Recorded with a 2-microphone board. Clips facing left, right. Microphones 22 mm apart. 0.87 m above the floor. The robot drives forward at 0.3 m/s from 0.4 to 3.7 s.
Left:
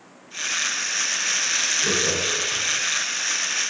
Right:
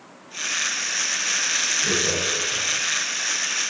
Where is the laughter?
55° left (ahead or behind), 0.9 m; by 2.6 s 45° left (ahead or behind), 1.0 m.